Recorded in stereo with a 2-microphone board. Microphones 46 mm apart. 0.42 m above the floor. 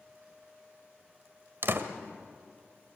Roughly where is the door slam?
Right.